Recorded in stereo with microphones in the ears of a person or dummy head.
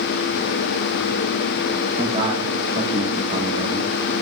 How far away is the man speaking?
About 2.5 m.